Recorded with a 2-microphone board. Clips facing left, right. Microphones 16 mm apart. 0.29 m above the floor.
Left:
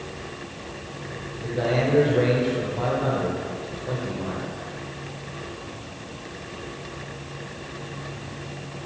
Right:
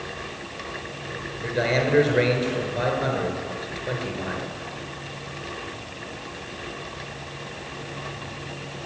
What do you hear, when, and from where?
1.4 s a man speaking: 60° right (ahead or behind), 4 m